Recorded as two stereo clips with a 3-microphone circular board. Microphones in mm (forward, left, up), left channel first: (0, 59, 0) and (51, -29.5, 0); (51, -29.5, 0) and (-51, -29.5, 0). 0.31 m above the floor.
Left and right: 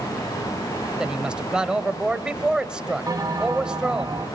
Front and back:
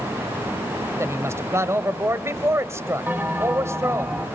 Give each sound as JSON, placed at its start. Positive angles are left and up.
{"t": 1.0, "sound": "a woman speaking", "azimuth_deg": -135, "distance_m": 1.4}
{"t": 3.1, "sound": "a bell", "azimuth_deg": -110, "distance_m": 2.0}